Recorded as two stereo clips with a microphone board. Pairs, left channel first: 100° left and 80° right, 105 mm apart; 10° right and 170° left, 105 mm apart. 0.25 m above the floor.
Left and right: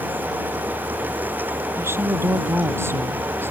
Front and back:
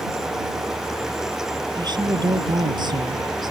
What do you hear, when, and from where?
1.8 s a woman speaking: 145° right